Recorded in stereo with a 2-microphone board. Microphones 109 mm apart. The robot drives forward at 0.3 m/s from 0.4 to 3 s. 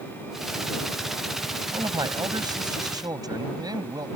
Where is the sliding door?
No sliding door in this recording.